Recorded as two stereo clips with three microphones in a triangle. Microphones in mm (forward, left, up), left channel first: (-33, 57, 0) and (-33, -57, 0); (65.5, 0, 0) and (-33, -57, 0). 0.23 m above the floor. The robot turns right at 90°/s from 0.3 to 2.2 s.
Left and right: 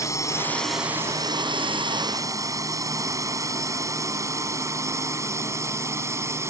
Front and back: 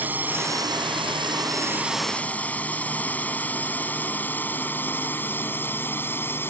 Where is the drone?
140° left; by 6.5 s 35° right.